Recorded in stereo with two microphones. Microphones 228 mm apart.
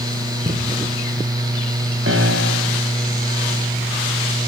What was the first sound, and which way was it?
Knocking, 35° right (ahead or behind).